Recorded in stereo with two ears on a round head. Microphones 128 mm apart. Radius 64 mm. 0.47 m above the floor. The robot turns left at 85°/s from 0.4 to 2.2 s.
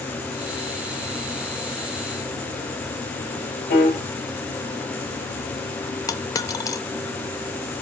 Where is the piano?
70° left (ahead or behind), 4.5 m.